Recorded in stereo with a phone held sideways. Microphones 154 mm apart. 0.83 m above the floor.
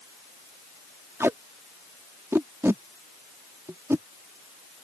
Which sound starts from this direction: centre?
Tape being pulled, at 1.2 s.